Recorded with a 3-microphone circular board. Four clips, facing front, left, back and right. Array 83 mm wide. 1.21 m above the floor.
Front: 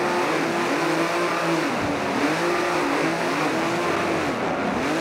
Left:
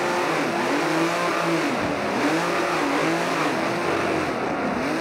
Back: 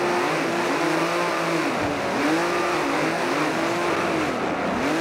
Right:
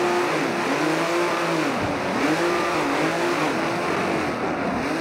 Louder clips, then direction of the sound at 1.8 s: Even, even; 100° right.